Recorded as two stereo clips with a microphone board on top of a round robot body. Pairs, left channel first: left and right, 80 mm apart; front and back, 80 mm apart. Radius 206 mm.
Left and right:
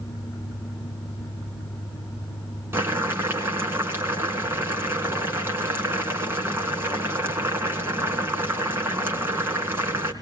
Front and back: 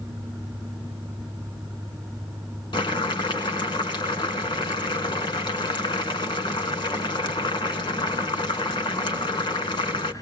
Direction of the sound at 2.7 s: 25° right.